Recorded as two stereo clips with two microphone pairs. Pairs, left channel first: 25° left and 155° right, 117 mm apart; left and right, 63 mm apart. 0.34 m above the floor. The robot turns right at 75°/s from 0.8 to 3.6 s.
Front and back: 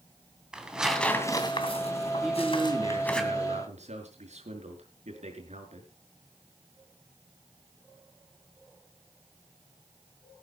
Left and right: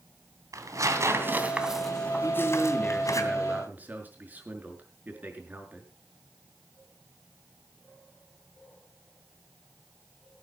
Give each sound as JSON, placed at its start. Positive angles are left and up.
{"t": 0.5, "sound": "tearing paper", "azimuth_deg": -75, "distance_m": 2.5}
{"t": 2.2, "sound": "a man speaking", "azimuth_deg": 110, "distance_m": 5.0}